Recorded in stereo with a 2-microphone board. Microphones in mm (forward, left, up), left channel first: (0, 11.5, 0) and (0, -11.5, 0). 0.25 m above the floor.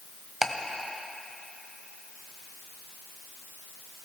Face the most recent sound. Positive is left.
turn(degrees=-25)  # may be behind; listen again after turning